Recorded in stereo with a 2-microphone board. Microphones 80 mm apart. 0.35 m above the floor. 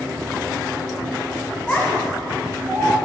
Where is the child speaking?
10° left (ahead or behind), 2.0 m; by 3.0 s 5° right (ahead or behind), 2.5 m.